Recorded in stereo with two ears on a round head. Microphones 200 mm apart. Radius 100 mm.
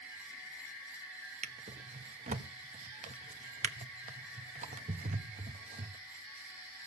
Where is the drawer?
35° right (ahead or behind), 0.9 m.